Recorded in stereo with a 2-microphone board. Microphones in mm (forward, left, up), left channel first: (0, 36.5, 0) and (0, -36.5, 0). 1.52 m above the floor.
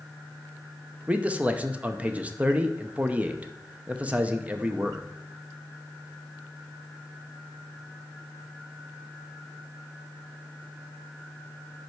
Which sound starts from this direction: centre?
A man speaking, at 1.1 s.